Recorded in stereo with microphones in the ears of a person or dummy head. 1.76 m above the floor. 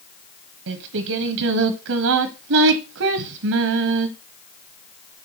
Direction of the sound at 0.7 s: 65° right (ahead or behind).